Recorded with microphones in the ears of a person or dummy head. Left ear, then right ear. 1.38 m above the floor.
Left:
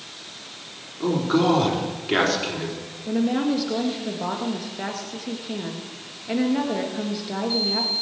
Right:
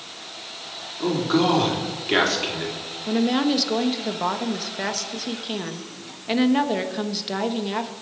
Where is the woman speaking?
40° right (ahead or behind), 1.5 m.